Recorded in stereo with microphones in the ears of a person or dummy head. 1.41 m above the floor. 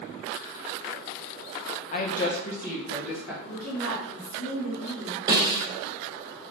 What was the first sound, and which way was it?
A woman speaking, 35° left (ahead or behind).